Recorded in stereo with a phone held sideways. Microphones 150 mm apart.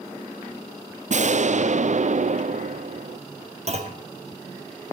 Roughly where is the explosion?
Right.